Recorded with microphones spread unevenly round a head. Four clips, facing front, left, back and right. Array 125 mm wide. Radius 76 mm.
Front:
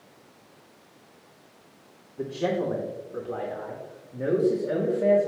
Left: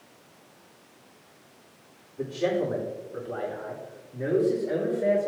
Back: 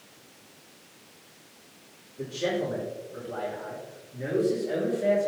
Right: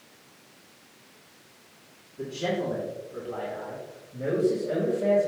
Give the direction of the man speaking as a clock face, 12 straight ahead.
12 o'clock.